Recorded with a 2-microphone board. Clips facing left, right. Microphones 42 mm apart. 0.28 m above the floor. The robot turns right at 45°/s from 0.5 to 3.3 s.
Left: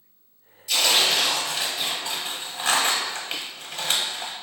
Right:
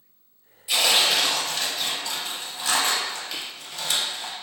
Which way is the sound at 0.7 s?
25° right.